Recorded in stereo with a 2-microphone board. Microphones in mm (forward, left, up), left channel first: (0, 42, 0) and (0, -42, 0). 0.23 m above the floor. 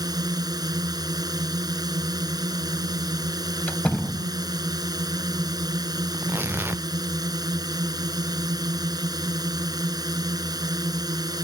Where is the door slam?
15° left (ahead or behind).